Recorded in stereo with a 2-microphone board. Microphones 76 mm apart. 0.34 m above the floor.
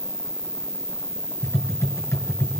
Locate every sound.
0.0 s an insect: 75° left (ahead or behind), 5.5 m
1.4 s tapping: 30° left (ahead or behind), 6 m